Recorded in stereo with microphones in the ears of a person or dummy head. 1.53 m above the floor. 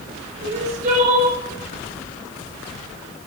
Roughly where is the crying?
Right.